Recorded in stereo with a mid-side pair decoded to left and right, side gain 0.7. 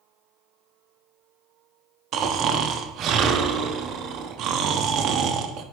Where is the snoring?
45° right, 0.6 m.